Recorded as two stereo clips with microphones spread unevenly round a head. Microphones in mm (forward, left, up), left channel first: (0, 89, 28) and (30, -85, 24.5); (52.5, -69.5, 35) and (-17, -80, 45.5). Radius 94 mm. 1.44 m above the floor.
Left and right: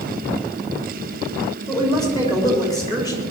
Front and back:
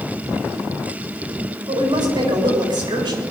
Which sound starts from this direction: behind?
A woman speaking, at 1.7 s.